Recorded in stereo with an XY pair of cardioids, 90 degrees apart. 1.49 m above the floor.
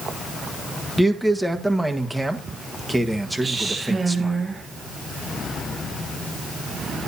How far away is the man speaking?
About 1.5 m.